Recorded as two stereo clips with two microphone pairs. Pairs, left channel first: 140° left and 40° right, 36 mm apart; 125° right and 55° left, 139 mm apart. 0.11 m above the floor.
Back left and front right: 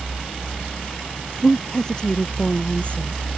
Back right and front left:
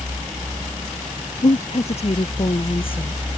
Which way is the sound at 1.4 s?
150° right.